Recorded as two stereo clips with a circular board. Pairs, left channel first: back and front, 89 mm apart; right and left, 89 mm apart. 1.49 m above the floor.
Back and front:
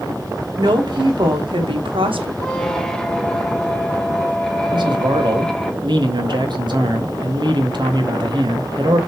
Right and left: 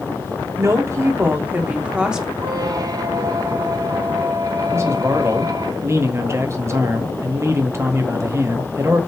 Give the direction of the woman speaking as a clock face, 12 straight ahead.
11 o'clock.